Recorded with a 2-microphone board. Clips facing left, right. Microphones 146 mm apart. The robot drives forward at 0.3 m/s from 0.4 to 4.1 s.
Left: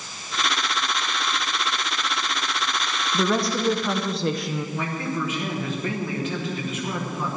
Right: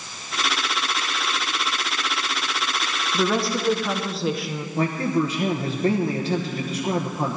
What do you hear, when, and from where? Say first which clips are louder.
3.1 s a woman speaking: even; centre (ahead or behind), 0.8 m
4.8 s a man speaking: right 11 dB; 35° right (ahead or behind), 1.1 m